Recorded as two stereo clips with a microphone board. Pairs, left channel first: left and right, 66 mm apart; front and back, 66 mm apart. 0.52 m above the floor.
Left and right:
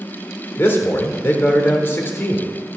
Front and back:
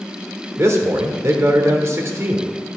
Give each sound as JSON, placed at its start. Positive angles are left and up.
{"t": 0.6, "sound": "a man speaking", "azimuth_deg": 140, "distance_m": 1.3}